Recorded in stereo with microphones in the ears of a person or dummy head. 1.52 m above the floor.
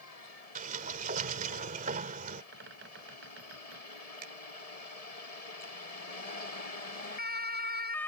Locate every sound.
0.6 s a sliding door: 50° right (ahead or behind)
2.5 s a bird: 80° right
4.2 s a finger snap: 60° right (ahead or behind)